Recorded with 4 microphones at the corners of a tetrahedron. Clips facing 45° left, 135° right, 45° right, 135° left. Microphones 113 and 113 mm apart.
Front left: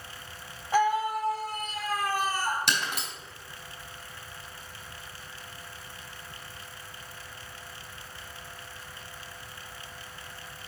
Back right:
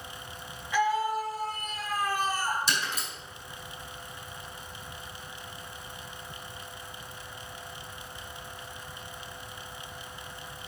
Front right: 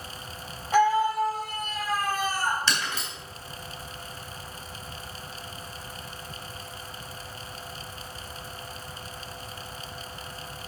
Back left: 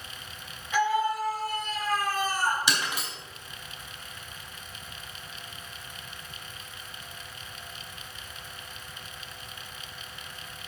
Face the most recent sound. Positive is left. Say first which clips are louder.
# front left 1 dB, even
turn(degrees=60)